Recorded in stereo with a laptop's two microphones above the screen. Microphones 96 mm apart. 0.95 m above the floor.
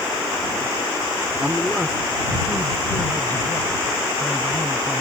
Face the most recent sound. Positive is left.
turn(degrees=25)  # may be behind; listen again after turning